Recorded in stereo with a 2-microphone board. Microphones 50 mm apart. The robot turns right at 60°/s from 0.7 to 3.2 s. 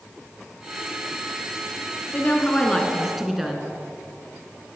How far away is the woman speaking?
About 2 m.